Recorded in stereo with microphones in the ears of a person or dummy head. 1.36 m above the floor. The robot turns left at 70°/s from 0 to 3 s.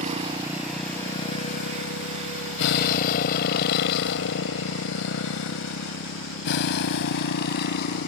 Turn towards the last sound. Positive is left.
turn(degrees=60)  # may be behind; listen again after turning